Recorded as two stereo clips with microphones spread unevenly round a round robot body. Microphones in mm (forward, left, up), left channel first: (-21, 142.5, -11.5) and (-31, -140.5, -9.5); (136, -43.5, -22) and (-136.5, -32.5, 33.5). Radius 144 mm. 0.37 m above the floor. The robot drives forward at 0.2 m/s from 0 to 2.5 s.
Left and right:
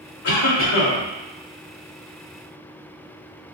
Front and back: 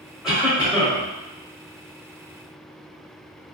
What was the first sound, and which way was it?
A cough, 80° left.